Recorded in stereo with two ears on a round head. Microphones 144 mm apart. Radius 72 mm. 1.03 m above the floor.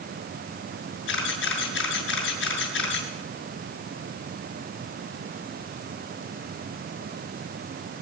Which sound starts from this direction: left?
A camera shutter, at 1.1 s.